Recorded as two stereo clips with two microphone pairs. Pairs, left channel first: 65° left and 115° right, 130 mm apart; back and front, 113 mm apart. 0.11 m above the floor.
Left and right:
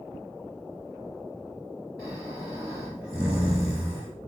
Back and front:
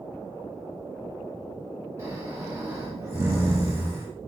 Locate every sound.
2.0 s snoring: 40° right, 2 m